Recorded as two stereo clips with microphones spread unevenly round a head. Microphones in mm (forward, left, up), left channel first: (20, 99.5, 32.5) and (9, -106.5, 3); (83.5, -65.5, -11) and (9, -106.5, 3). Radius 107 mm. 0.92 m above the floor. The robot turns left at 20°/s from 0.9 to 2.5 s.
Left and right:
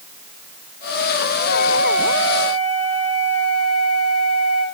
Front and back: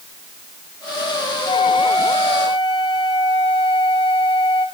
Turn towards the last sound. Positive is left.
turn(degrees=65)